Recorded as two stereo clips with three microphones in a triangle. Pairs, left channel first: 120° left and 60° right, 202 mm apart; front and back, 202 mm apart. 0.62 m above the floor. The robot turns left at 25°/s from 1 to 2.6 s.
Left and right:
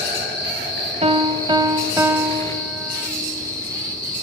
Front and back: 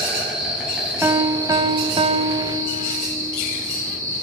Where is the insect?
95° right, 3 m; by 4.2 s 135° right, 3 m.